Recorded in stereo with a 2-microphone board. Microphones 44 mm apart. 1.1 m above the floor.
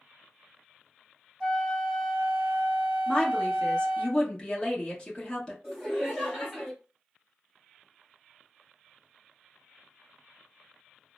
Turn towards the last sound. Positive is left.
turn(degrees=0)  # may be behind; listen again after turning